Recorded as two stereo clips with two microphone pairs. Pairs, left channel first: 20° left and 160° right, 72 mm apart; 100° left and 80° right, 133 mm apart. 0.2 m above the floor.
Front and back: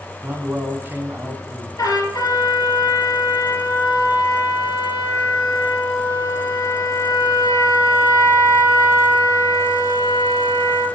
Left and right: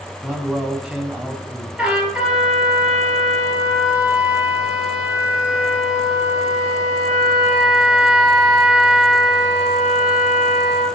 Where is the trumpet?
5° left, 3 m.